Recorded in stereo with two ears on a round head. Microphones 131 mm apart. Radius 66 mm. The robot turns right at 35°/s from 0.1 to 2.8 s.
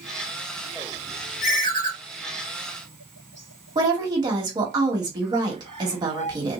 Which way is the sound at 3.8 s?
25° right (ahead or behind).